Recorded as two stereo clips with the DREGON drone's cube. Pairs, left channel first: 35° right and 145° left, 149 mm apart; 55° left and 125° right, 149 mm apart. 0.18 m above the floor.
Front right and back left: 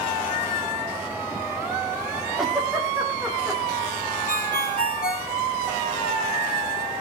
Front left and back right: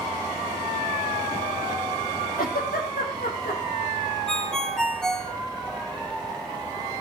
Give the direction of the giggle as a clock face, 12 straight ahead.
10 o'clock.